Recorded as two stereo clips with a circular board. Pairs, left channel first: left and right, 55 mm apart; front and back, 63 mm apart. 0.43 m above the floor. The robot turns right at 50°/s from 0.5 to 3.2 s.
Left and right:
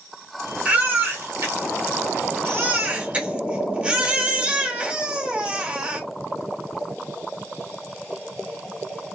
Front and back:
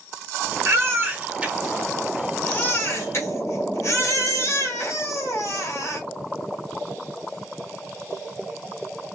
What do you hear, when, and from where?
0.7 s a baby crying: 155° right, 1.3 m; by 6.0 s 25° right, 1.3 m